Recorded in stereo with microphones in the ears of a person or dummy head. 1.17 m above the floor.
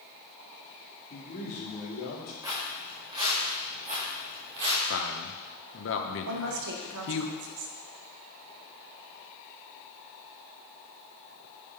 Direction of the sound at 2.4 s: 15° right (ahead or behind).